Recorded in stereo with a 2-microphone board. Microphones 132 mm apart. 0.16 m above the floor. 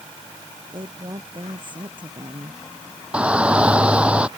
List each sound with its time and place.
0.7 s a woman speaking: 35° right (ahead or behind)
3.1 s a shout: 10° right (ahead or behind)